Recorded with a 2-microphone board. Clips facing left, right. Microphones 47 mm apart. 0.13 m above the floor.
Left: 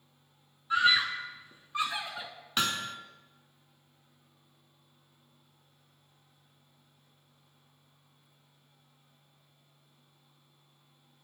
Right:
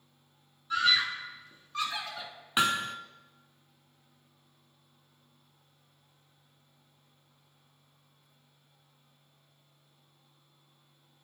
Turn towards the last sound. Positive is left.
turn(degrees=-20)  # may be behind; listen again after turning